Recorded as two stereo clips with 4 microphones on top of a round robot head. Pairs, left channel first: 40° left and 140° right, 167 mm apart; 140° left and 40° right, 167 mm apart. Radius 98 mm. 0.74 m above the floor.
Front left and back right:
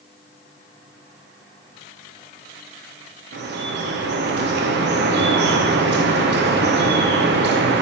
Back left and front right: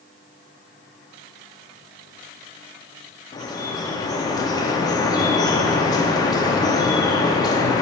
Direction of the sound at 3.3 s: 150° right.